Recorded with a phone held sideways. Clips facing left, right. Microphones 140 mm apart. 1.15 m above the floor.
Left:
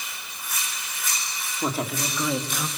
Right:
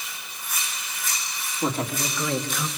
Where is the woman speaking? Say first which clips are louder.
Right 1 dB; 5° left (ahead or behind), 3.5 m; by 2.7 s 15° left (ahead or behind), 2 m.